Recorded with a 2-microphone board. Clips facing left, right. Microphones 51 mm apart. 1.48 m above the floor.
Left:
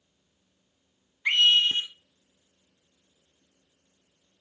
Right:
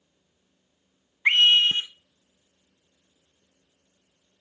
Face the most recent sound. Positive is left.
turn(degrees=-35)  # may be behind; listen again after turning